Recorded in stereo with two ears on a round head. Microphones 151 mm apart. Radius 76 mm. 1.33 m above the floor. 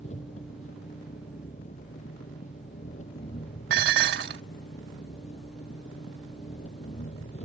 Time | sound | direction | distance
0.0 | an engine running | 45° left (ahead or behind) | ?
3.7 | dishes clattering | 75° right (ahead or behind) | ?